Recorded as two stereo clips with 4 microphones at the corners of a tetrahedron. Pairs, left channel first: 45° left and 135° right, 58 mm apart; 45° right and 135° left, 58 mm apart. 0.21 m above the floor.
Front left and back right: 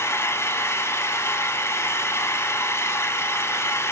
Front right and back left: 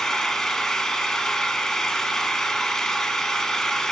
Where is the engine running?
35° left, 0.7 m.